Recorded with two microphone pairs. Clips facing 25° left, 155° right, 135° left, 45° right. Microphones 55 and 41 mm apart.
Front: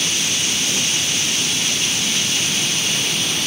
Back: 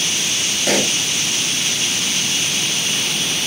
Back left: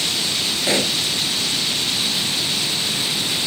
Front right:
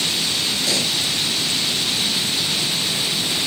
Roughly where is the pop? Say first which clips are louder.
Back 5 dB, back left 5 dB; behind.